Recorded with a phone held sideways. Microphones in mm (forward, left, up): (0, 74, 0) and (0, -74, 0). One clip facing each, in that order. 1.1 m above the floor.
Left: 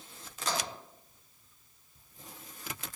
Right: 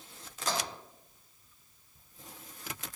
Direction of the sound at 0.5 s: 15° right (ahead or behind).